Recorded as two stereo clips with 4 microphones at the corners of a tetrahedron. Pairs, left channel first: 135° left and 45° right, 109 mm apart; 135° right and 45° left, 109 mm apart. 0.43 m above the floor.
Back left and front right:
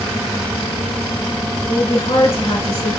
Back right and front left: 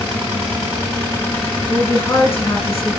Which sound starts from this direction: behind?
A woman speaking, at 1.7 s.